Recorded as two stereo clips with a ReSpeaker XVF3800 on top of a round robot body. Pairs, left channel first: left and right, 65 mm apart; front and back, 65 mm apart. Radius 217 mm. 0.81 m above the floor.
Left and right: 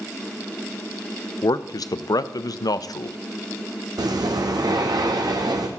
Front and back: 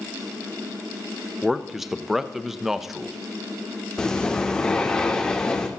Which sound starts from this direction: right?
Breathing, at 4.0 s.